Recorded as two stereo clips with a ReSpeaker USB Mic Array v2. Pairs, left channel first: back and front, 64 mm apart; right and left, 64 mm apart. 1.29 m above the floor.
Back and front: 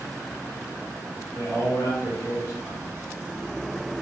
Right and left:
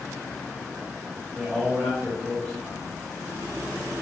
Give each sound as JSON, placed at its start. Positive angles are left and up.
{"t": 1.4, "sound": "a man speaking", "azimuth_deg": -165, "distance_m": 2.0}